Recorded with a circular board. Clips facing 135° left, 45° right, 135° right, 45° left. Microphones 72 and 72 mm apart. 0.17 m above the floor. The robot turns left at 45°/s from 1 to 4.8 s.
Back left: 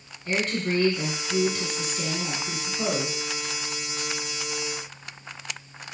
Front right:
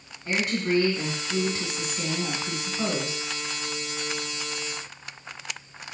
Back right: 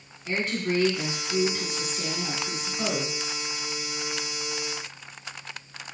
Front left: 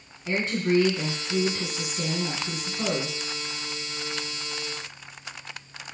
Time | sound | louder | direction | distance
0.2 | a woman speaking | front right 1 dB, front left 3 dB | 20° left | 1.5 m